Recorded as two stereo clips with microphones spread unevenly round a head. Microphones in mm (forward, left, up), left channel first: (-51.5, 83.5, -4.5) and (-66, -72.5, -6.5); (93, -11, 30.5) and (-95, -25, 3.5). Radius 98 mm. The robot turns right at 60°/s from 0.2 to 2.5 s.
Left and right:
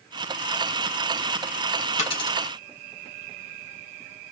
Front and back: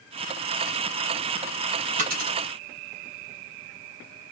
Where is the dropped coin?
130° left, 2.0 m; by 2.4 s 150° left, 2.0 m.